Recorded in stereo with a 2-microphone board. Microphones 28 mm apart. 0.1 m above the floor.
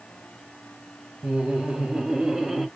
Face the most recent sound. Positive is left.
turn(degrees=-15)  # may be behind; listen again after turning